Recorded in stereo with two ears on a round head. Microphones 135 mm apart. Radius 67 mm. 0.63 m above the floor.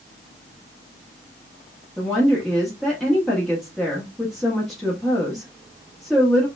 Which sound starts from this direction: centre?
A woman speaking, at 2.0 s.